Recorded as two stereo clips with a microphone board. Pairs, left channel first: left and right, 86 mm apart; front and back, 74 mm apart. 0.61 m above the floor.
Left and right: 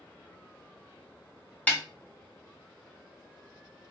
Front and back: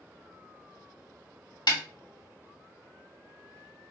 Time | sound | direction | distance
1.7 | a snare drum | 20° left | 0.8 m